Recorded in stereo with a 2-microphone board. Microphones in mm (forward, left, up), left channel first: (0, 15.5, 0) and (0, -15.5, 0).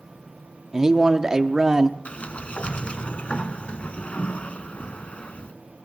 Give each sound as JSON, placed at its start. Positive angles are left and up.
{"t": 0.7, "sound": "a man speaking", "side_deg": -20, "distance_m": 0.7}
{"t": 2.0, "sound": "a sliding door", "side_deg": 45, "distance_m": 0.9}